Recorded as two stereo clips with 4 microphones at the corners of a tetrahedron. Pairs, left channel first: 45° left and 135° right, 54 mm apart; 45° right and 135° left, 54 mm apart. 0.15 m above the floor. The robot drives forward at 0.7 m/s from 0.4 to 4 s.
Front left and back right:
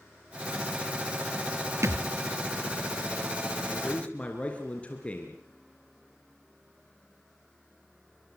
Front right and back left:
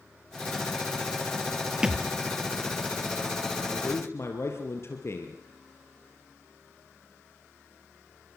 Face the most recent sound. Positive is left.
turn(degrees=-20)